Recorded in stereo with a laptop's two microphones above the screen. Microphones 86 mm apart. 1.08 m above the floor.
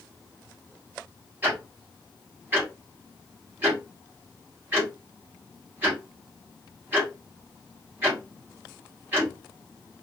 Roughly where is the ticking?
Right.